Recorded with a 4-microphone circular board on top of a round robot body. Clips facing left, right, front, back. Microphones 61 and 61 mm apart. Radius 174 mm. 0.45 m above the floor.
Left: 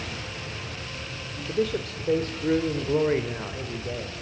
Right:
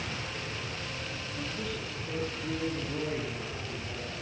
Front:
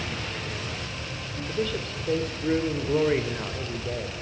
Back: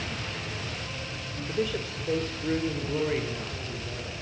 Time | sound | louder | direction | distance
1.5 | a man speaking | left 10 dB, even | 110° left | 2.5 m